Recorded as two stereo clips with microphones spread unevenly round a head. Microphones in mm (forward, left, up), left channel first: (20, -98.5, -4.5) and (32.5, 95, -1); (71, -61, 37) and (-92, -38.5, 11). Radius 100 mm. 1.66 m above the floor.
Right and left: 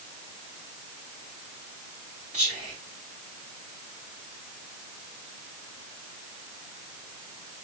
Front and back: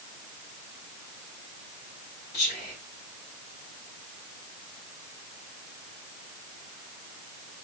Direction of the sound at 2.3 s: 35° left.